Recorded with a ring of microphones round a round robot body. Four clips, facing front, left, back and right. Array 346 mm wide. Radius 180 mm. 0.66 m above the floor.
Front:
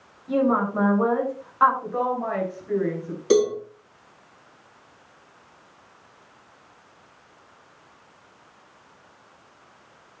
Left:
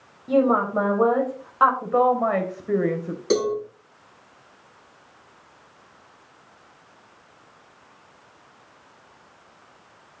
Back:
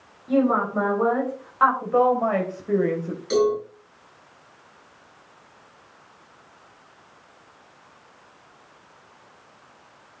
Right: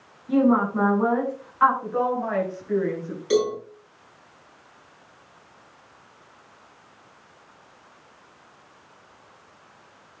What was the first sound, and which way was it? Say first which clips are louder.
A woman speaking: even, back 1 dB; 90° left.